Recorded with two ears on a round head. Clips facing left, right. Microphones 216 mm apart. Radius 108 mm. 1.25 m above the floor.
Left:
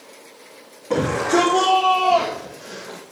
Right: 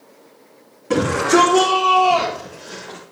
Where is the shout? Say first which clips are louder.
Right 3 dB; 25° right (ahead or behind), 3 m; by 3.0 s 15° left (ahead or behind), 1.8 m.